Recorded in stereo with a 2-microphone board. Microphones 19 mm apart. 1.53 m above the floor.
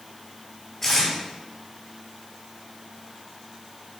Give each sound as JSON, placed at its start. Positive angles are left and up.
{"t": 0.8, "sound": "tape being pulled", "side_deg": 15, "distance_m": 5.0}